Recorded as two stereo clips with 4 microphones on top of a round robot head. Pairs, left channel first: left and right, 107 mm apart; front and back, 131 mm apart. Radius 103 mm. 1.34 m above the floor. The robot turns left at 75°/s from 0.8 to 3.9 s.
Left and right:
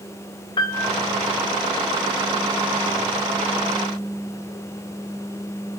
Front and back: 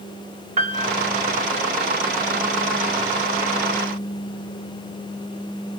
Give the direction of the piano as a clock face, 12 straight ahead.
7 o'clock.